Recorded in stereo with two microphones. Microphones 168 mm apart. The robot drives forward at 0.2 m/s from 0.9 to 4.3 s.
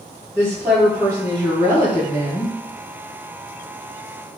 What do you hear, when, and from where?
0.3 s a woman speaking: 15° right (ahead or behind), 1.8 m